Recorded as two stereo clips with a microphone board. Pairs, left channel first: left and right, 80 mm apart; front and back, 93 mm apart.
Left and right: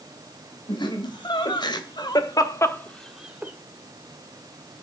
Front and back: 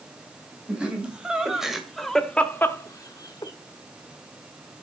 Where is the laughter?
100° left, 3.5 m; by 3.5 s 30° right, 1.4 m.